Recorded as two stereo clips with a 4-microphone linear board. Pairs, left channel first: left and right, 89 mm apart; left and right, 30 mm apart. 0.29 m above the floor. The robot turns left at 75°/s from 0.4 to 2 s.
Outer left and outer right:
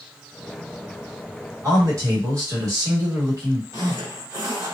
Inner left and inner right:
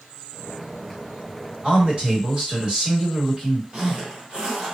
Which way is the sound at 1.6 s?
40° right (ahead or behind).